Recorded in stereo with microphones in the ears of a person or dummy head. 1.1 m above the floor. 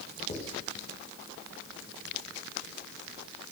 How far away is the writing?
About 1.7 m.